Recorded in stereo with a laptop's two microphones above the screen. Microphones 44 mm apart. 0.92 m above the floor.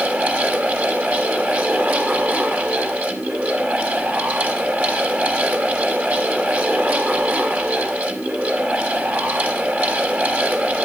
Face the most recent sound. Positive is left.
turn(degrees=-40)  # may be behind; listen again after turning